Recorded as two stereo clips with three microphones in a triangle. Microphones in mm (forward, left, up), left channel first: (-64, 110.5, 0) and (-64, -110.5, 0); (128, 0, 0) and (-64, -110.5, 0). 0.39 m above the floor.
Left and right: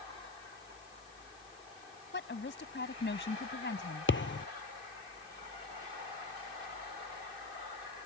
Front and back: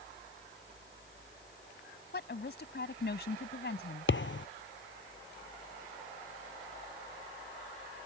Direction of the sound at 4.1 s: 60° left.